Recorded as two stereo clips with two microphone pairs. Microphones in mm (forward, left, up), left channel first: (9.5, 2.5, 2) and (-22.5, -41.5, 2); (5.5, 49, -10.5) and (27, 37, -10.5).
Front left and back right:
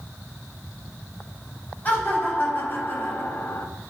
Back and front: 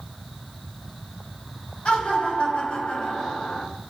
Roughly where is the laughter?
Behind left.